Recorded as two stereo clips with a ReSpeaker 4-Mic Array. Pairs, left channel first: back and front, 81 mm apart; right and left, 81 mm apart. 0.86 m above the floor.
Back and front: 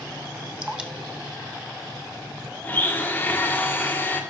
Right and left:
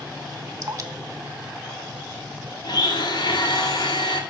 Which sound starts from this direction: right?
A blender, at 2.6 s.